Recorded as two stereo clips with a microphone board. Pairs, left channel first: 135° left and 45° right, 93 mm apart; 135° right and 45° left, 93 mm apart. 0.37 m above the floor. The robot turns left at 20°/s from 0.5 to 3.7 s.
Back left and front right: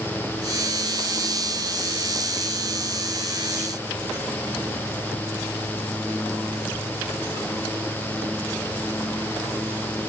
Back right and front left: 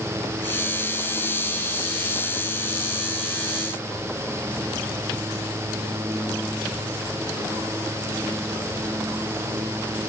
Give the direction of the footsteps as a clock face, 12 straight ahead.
No footsteps in this recording.